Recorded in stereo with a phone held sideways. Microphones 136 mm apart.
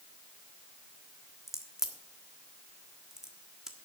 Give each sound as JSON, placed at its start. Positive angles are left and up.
{"t": 1.5, "sound": "a crack", "side_deg": -5, "distance_m": 1.5}